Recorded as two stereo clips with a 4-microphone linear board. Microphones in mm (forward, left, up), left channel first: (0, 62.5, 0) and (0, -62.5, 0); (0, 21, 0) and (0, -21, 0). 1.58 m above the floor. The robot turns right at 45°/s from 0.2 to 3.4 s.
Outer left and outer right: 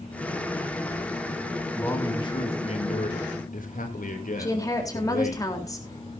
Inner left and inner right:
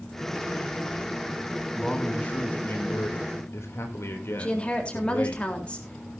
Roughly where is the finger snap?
I don't hear a finger snap.